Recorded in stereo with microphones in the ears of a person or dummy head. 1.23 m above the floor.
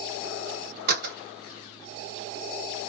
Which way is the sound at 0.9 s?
50° right (ahead or behind).